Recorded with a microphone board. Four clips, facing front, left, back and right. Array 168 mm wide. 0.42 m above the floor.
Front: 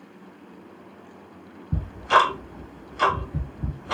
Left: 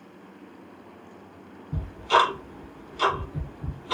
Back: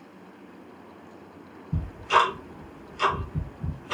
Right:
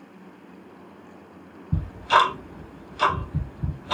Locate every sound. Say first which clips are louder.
1.7 s ticking: right 2 dB, front 3 dB; 30° right, 2.5 m